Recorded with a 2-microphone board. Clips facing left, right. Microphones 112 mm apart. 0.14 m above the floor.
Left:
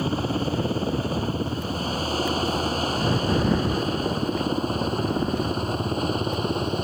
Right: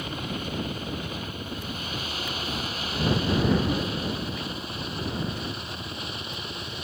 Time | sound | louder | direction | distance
0.0 | a helicopter | left 8 dB | 35° left (ahead or behind) | ?